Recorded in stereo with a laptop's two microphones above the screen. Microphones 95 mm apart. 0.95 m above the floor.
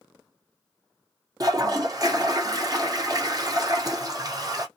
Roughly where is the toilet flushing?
Right.